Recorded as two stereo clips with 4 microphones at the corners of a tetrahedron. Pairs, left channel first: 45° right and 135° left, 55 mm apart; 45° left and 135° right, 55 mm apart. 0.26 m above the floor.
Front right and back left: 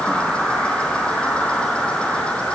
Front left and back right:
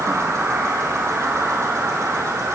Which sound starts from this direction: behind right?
An insect, at 0.0 s.